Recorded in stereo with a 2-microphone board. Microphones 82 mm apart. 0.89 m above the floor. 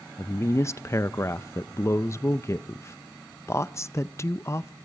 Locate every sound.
0.2 s a woman speaking: 35° left (ahead or behind), 0.5 m